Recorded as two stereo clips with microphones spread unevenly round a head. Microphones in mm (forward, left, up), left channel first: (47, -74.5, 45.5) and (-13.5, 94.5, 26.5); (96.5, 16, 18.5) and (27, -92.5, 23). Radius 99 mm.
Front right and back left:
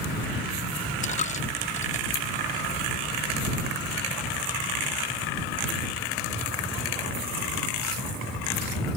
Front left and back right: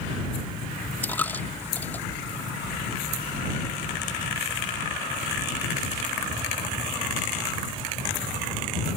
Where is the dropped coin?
20° right.